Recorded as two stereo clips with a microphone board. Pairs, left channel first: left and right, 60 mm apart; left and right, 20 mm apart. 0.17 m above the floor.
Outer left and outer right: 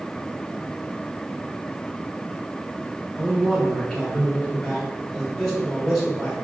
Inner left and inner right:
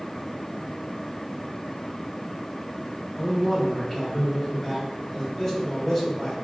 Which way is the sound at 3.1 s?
Centre (ahead or behind).